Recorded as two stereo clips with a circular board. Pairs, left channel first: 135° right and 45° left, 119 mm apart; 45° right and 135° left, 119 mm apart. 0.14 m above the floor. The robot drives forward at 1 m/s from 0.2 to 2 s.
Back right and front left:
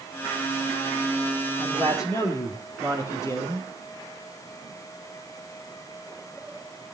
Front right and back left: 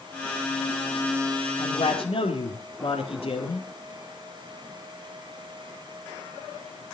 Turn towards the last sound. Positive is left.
turn(degrees=-75)